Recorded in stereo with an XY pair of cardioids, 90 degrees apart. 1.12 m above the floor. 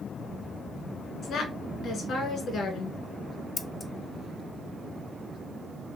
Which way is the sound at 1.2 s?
70° left.